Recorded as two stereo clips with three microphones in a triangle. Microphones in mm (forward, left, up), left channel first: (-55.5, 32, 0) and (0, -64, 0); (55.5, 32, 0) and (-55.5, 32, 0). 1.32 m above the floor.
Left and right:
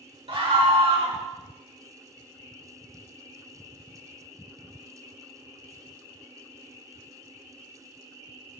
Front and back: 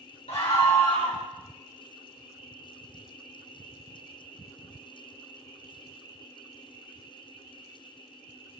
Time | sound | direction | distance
0.3 | a scream | 25° right | 2.5 m